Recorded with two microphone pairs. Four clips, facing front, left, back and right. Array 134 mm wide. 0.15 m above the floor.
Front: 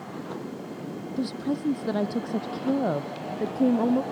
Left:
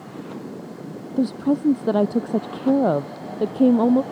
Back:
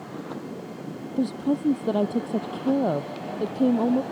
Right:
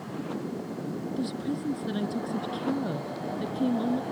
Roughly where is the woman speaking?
Left.